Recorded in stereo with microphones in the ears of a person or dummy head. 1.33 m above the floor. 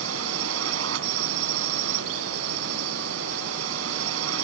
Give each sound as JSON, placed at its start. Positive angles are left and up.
{"t": 0.0, "sound": "a drone", "side_deg": -80}